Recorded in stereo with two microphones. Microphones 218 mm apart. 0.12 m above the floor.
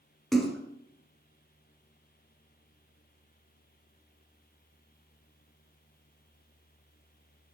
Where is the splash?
Centre (ahead or behind), 2 m.